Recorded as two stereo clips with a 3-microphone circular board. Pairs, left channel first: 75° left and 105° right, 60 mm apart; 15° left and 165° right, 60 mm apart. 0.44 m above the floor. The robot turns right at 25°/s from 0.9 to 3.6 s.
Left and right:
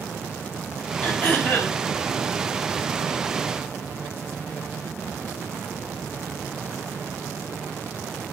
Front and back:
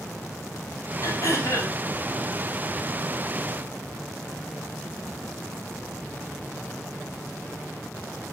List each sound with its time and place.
1.0 s throat clearing: 15° left, 3 m; by 1.8 s 35° left, 3 m